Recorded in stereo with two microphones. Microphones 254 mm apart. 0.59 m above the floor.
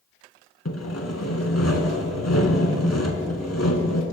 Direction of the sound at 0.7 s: 80° left.